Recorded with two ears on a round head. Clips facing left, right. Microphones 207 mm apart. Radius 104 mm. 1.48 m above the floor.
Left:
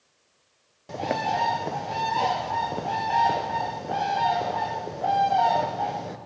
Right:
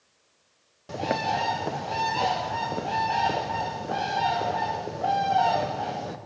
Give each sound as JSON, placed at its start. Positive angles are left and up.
{"t": 0.9, "sound": "a bird", "side_deg": -5, "distance_m": 0.8}